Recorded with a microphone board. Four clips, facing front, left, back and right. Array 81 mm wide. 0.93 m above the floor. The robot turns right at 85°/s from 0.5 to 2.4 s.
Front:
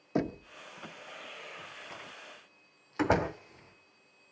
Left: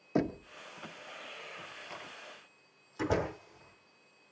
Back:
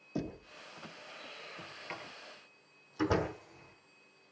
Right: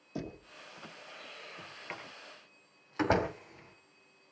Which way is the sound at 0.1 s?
45° left.